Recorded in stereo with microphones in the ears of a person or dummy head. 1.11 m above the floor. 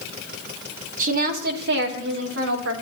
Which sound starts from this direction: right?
A woman speaking, at 1.0 s.